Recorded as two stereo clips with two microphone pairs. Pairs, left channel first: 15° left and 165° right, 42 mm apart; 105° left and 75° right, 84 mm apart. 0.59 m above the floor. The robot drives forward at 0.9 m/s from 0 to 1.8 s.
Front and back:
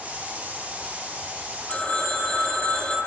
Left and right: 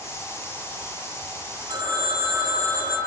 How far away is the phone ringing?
About 9 m.